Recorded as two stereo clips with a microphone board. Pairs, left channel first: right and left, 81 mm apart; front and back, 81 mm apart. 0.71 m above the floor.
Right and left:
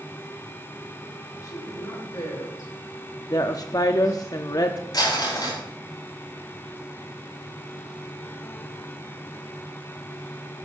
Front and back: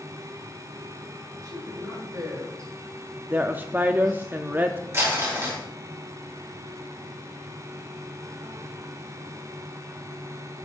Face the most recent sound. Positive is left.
turn(degrees=-125)